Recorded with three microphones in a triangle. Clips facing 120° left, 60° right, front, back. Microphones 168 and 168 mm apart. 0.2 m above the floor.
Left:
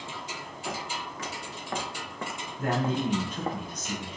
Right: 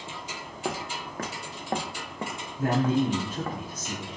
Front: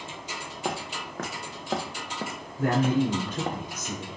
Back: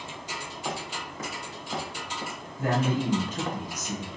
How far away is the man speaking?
About 1.8 m.